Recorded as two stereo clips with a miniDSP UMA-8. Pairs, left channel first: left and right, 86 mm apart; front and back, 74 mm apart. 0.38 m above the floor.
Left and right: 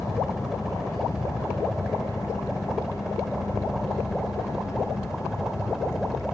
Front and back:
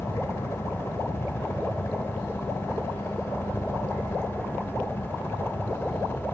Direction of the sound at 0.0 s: 5° right.